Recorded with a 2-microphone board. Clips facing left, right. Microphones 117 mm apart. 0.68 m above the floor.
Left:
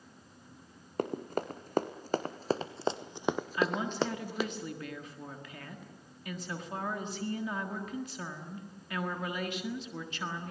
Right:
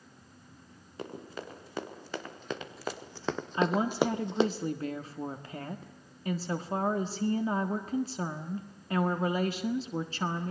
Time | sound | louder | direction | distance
1.0 | running footsteps | left 7 dB | 55° left (ahead or behind) | 2.5 m
3.5 | a woman speaking | right 7 dB | 35° right (ahead or behind) | 1.5 m